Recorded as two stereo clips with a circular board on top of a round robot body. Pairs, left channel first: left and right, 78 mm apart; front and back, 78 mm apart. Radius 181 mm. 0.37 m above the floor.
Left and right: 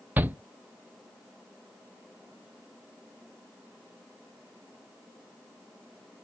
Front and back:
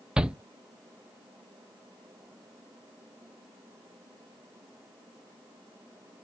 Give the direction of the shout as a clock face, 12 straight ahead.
4 o'clock.